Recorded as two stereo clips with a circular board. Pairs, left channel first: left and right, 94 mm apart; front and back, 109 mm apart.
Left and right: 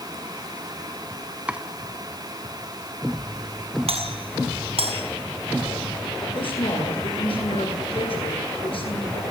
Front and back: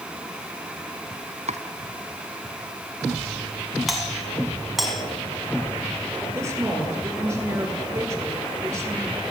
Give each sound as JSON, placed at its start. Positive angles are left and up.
{"t": 1.5, "sound": "chopping", "azimuth_deg": -170, "distance_m": 1.9}
{"t": 3.9, "sound": "a doorbell", "azimuth_deg": -90, "distance_m": 5.5}
{"t": 6.2, "sound": "a woman speaking", "azimuth_deg": 115, "distance_m": 9.5}